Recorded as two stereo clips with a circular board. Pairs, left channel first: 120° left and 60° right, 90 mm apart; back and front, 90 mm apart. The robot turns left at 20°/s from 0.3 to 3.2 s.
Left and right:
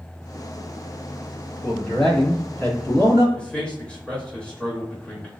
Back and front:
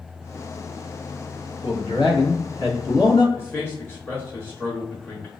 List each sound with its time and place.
1.6 s a man speaking: 150° right, 1.7 m; by 3.2 s 175° left, 1.7 m
3.4 s a man speaking: straight behind, 0.9 m